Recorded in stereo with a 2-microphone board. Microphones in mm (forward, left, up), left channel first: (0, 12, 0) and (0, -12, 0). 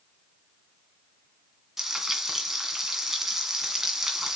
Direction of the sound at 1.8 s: 15° right (ahead or behind).